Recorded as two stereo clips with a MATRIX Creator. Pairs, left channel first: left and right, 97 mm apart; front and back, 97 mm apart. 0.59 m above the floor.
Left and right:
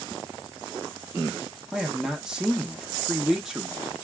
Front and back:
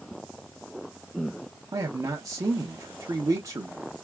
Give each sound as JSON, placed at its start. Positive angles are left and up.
{"t": 1.7, "sound": "a man speaking", "azimuth_deg": -170, "distance_m": 0.7}